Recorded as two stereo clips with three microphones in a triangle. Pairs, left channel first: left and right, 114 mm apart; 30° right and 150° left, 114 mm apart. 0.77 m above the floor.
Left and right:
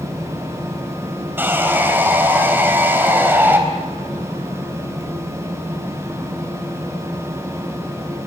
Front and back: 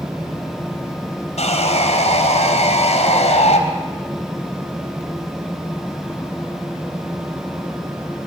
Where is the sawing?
15° right, 4 m.